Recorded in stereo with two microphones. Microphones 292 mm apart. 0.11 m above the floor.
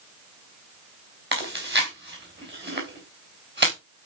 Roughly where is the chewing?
Right.